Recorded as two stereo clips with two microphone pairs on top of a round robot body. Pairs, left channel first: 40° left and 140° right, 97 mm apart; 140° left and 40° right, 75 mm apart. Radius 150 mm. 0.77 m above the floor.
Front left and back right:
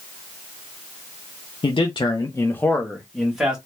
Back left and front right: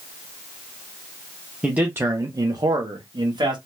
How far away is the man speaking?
About 0.8 m.